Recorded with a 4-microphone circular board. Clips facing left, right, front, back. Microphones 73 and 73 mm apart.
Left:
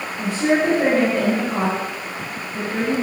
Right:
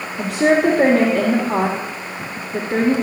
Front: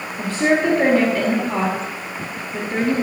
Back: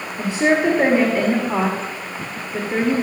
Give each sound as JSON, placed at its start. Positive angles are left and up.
{"t": 0.2, "sound": "a woman speaking", "azimuth_deg": -100, "distance_m": 2.0}